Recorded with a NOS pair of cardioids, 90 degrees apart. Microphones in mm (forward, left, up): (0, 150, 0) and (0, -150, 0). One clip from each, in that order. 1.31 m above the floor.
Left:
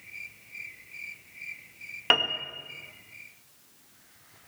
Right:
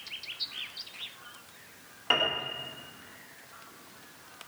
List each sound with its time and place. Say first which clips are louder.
2.1 s a piano: left 3 dB; 65° left, 2.0 m